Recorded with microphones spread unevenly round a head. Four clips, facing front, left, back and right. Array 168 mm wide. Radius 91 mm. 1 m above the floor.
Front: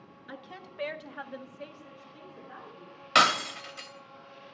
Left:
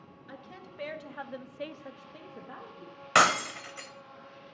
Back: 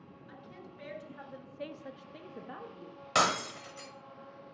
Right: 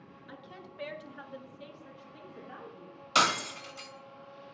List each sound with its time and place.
0.3 s a woman speaking: 15° left, 1.8 m; by 3.0 s 155° left, 1.7 m
3.1 s breaking glass: 75° left, 0.8 m